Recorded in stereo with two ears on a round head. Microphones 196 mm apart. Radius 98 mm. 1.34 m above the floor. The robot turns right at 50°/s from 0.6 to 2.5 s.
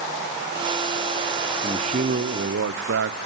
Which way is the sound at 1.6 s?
155° right.